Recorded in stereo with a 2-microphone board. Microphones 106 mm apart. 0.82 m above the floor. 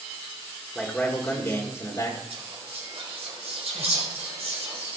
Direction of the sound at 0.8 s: 5° left (ahead or behind).